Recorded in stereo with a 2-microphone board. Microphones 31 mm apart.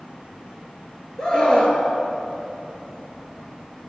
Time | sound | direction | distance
1.2 | a scream | 30° left (ahead or behind) | 3 m